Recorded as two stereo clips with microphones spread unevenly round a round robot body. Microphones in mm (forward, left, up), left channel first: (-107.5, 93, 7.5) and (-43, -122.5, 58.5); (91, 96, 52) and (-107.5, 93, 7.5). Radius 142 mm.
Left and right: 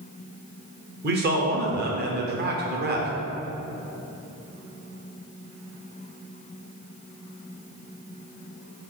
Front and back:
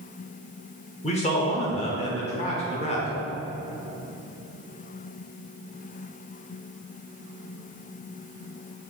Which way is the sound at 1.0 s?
50° right.